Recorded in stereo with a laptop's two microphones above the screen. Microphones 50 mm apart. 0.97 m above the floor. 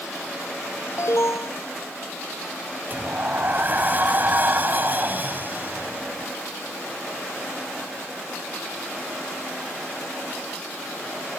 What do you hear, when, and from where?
1.0 s an alarm: 75° left (ahead or behind)
2.9 s a sliding door: 35° right (ahead or behind)